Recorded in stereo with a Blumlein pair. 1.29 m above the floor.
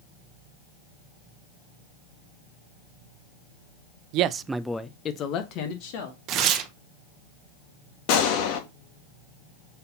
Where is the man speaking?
40° right, 0.5 m; by 6.2 s 50° left, 1.5 m.